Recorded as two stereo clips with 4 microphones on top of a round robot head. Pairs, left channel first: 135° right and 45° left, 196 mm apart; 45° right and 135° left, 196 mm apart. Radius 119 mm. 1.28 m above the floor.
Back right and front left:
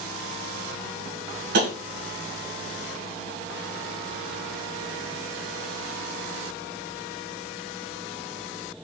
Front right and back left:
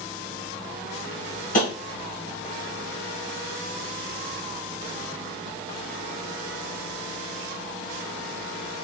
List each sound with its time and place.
1.5 s tapping: 5° left, 1.2 m